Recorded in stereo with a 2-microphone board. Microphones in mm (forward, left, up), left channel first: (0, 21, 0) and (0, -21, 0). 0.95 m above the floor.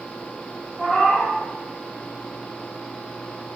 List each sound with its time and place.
0.8 s a cat meowing: 10° left (ahead or behind), 0.7 m